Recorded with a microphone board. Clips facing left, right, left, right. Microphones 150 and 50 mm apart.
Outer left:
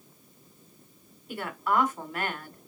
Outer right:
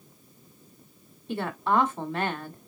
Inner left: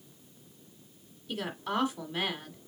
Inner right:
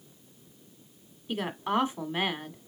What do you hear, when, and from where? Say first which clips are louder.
1.3 s a woman speaking: outer right 3 dB, inner right 4 dB; 30° right (ahead or behind), 1.3 m